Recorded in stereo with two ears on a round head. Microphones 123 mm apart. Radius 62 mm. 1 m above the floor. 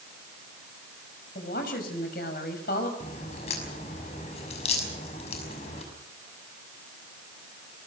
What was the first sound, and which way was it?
A woman speaking, 70° left (ahead or behind).